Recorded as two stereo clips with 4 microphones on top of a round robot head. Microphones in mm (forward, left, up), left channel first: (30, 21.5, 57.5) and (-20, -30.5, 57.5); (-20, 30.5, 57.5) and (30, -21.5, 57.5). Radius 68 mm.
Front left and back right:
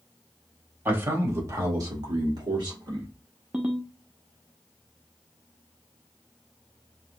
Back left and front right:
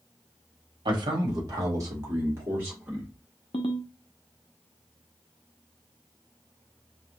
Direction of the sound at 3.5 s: 150° left.